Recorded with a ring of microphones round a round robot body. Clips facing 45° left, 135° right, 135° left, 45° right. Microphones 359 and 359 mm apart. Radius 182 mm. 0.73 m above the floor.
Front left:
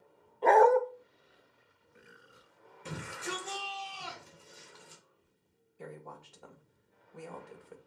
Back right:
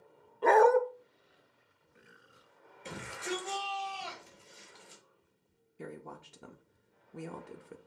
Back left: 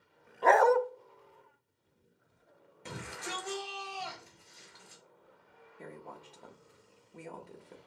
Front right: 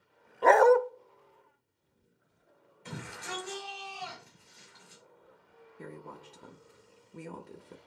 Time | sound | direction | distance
0.4 | a dog barking | 60° right | 0.5 m
2.9 | a shout | 120° left | 4.5 m
5.8 | a woman speaking | 100° right | 0.7 m